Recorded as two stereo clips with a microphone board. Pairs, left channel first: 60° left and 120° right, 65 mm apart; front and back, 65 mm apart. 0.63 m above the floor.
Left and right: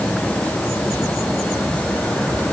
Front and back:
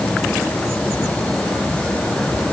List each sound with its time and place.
Only background noise.